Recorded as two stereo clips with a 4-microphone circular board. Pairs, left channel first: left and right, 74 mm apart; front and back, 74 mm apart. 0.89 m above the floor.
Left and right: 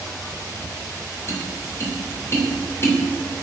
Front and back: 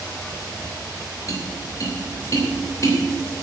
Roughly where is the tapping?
Ahead left.